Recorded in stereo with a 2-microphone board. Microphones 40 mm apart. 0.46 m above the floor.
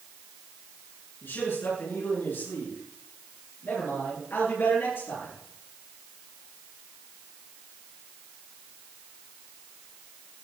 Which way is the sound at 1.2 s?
80° left.